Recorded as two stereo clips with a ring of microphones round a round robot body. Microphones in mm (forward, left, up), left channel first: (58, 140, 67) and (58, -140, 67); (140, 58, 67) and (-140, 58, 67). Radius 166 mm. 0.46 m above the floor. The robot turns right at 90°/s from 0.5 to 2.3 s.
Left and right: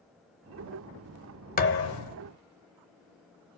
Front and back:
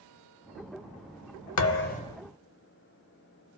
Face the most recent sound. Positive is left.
turn(degrees=95)